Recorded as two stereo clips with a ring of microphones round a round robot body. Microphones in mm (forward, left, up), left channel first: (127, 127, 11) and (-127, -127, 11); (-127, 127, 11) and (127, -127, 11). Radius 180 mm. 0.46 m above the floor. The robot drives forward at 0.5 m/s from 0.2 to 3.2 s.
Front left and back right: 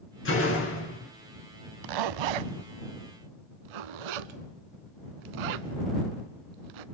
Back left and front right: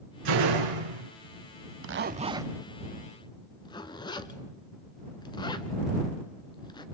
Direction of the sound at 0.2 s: 15° right.